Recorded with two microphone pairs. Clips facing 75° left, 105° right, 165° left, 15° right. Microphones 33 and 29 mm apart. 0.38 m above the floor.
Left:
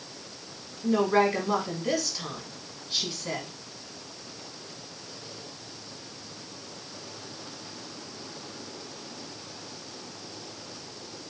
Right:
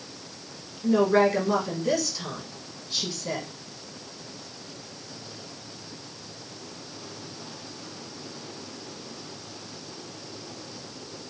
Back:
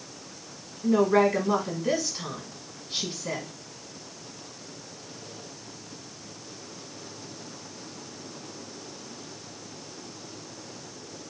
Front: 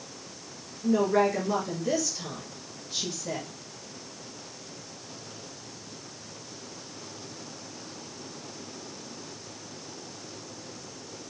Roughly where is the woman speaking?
Behind.